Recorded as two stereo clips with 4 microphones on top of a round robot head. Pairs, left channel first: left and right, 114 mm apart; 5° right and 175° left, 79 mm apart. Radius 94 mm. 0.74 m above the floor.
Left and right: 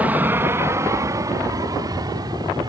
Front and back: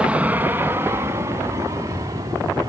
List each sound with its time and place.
0.0 s an aircraft: 135° right; by 2.7 s 140° right